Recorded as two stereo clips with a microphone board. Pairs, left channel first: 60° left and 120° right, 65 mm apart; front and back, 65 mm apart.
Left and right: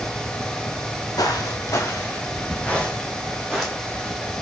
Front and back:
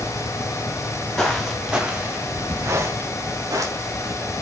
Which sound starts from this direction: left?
Footsteps, at 1.2 s.